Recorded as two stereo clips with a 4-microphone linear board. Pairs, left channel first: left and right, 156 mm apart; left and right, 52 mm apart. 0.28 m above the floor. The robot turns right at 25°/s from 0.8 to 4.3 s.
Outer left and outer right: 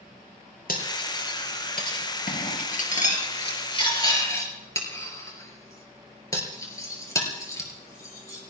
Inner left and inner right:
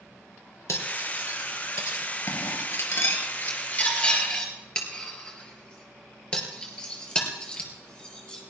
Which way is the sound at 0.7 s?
70° left (ahead or behind).